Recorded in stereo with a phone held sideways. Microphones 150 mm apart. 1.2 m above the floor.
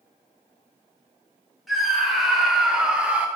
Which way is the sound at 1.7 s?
Centre (ahead or behind).